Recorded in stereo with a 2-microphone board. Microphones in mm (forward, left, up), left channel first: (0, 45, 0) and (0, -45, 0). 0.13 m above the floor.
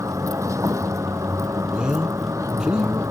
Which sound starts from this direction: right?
A vehicle, at 0.0 s.